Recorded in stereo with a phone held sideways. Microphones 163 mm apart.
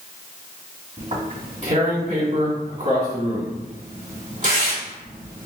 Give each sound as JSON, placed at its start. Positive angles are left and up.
{"t": 1.0, "sound": "tearing paper", "side_deg": -50, "distance_m": 1.8}